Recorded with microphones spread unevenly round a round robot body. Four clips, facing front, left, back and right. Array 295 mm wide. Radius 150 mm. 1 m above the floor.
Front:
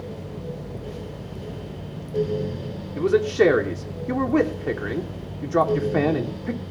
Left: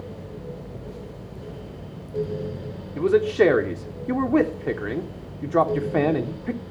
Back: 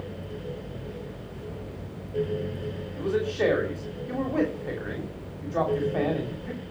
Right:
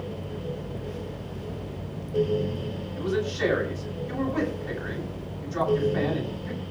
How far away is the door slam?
I don't hear a door slam.